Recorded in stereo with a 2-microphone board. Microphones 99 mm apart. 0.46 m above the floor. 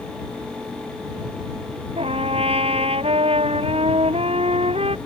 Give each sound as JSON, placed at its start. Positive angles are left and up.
{"t": 2.0, "sound": "a trumpet", "side_deg": -85}